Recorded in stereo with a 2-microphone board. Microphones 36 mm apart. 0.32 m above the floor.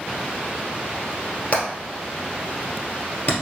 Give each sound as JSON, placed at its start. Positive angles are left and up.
{"t": 1.5, "sound": "hammering", "side_deg": 35, "distance_m": 1.9}